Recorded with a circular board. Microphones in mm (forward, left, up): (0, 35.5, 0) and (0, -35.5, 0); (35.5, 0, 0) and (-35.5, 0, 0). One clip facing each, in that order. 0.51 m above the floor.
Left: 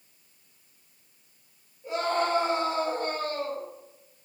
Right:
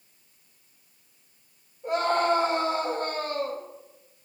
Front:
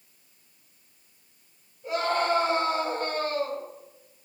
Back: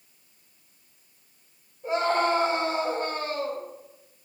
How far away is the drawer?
No drawer in this recording.